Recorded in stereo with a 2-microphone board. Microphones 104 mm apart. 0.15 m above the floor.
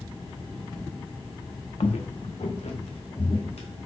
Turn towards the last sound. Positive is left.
turn(degrees=80)